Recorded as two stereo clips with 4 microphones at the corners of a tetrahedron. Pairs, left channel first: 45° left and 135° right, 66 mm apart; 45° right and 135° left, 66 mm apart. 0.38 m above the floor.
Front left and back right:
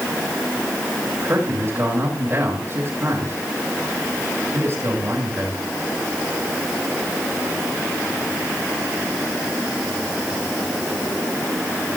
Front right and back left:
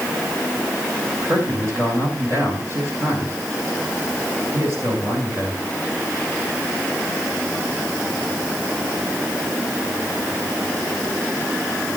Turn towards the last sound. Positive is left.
turn(degrees=180)